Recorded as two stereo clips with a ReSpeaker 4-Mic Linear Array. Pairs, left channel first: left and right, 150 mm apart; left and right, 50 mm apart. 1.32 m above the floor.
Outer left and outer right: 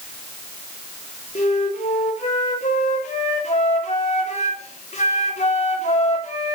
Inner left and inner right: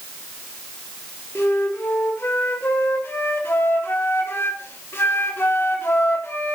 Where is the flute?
50° left (ahead or behind), 3.5 m.